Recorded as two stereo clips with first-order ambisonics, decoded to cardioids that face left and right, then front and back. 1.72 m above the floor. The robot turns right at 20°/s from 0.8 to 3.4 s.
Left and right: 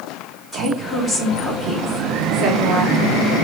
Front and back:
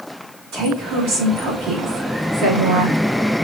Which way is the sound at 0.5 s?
175° right.